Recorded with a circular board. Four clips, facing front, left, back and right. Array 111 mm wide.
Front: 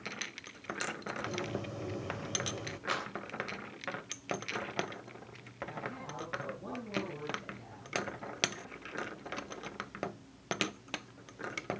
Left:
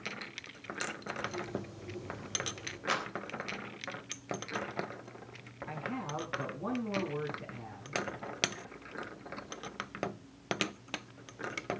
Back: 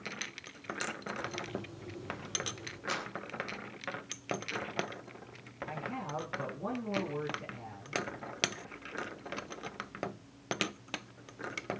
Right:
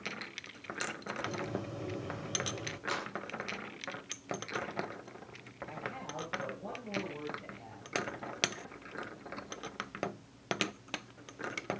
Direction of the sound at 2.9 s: 75° left.